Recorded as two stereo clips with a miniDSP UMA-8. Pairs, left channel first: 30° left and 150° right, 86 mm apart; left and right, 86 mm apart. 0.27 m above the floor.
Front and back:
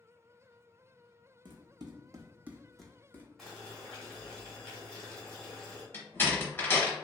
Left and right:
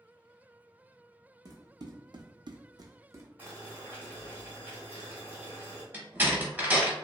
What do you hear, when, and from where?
1.4 s running footsteps: 135° right, 0.8 m; by 3.3 s 35° right, 0.7 m
3.4 s boiling: 55° right, 1.3 m
5.9 s a door slam: 30° right, 0.9 m